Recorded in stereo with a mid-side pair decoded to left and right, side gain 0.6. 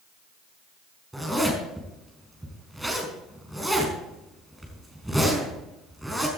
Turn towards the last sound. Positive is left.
turn(degrees=-5)